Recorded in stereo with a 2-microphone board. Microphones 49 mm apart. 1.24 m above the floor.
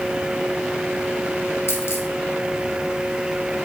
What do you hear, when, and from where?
1.7 s a dropped coin: 65° left (ahead or behind), 1.5 m